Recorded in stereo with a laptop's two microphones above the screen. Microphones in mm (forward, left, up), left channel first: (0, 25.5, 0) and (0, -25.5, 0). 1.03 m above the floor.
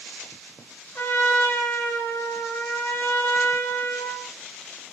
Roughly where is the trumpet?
Left.